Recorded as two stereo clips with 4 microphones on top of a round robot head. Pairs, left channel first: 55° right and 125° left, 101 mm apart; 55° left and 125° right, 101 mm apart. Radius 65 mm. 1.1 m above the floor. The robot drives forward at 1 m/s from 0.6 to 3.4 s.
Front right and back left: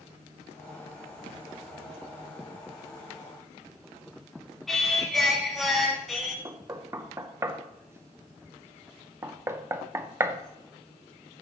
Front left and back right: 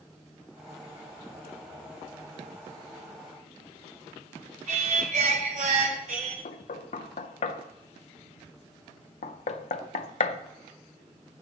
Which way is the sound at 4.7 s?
140° right.